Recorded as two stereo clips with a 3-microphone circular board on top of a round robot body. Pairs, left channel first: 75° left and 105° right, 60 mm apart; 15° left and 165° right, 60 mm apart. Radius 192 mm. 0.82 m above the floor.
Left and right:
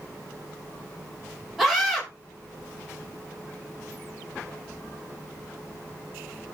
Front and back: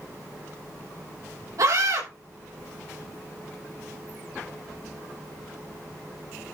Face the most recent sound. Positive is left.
turn(degrees=165)